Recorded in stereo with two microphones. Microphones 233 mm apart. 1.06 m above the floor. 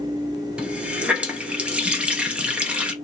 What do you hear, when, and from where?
0.6 s a running tap: 5° right (ahead or behind), 0.6 m